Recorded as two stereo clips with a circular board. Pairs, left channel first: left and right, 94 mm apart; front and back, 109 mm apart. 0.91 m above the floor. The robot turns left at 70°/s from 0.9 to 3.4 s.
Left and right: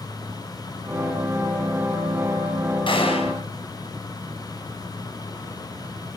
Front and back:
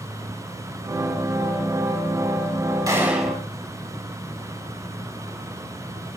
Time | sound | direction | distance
2.9 | a gunshot | 120° left | 5 m